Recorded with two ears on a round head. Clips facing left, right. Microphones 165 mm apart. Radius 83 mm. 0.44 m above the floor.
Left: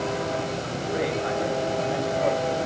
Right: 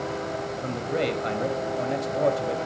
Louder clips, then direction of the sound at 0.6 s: Right 1 dB; 40° right (ahead or behind).